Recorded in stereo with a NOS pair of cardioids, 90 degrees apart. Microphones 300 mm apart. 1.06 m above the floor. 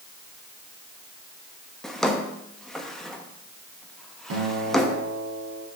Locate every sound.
1.8 s a drawer: straight ahead, 0.8 m
4.3 s a guitar: 55° right, 3 m